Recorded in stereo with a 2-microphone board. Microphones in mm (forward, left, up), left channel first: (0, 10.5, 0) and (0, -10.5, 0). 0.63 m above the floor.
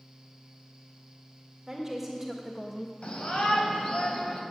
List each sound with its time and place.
1.7 s a woman speaking: 15° right (ahead or behind), 1.6 m; by 2.9 s 15° left (ahead or behind), 0.6 m
3.0 s a shout: 70° left (ahead or behind), 3.5 m